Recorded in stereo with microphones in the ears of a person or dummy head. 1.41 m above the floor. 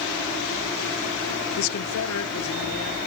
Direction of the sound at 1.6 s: 65° left (ahead or behind).